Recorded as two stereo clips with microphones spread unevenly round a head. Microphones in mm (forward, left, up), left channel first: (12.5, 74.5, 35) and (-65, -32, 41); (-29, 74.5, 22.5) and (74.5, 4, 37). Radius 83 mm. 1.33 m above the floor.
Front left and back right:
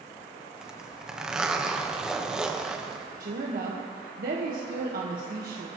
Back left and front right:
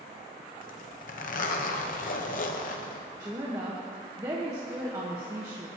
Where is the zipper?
150° left, 1.4 m.